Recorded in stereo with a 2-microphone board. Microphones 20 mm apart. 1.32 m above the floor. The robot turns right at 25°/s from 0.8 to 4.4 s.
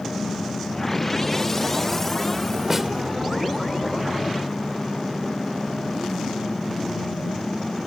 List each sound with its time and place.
2.7 s a snare drum: 10° right (ahead or behind); by 2.9 s 5° right (ahead or behind)